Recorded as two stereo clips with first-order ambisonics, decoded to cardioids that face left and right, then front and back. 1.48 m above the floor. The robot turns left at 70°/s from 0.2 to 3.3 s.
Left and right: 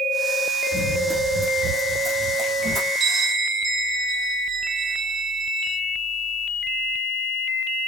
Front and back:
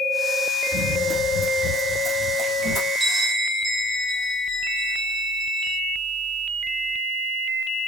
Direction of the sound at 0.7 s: 90° right.